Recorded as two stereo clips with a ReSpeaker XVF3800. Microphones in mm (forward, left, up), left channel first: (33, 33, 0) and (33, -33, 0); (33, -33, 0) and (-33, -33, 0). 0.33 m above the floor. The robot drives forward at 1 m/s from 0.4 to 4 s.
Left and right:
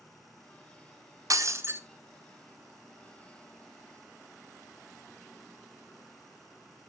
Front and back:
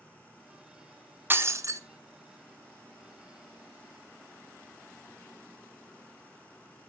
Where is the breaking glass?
120° right, 0.8 m; by 1.8 s 145° right, 1.2 m.